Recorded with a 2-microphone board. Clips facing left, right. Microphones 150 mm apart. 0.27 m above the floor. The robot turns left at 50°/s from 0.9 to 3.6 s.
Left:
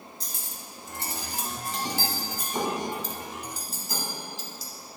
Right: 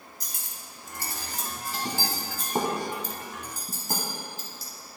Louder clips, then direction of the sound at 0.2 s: Left 3 dB; 30° left (ahead or behind).